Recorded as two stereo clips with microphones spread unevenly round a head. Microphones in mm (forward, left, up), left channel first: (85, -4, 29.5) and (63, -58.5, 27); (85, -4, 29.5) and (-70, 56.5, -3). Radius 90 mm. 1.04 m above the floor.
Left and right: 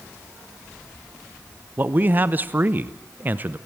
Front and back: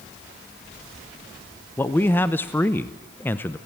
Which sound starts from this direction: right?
A man speaking, at 1.8 s.